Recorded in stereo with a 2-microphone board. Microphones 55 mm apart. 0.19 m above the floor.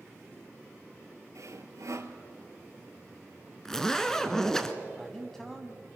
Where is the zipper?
10° left (ahead or behind), 1.1 m.